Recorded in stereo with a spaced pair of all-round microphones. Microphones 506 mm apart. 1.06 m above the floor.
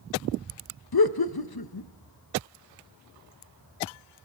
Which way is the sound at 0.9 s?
50° left (ahead or behind).